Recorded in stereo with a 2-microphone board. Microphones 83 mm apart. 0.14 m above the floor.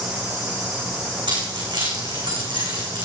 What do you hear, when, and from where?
1.3 s keys jangling: 75° right (ahead or behind), 7 m